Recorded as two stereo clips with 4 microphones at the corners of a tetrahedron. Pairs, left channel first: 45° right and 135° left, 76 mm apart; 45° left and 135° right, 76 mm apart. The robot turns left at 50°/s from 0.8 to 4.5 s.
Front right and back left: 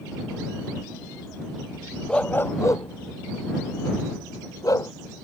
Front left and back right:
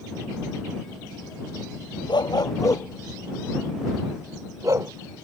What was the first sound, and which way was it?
A dog barking, 30° left.